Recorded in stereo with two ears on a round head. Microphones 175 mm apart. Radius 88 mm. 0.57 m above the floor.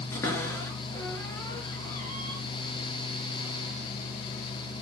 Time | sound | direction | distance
0.1 | a cupboard door | 15° left (ahead or behind) | 4.5 m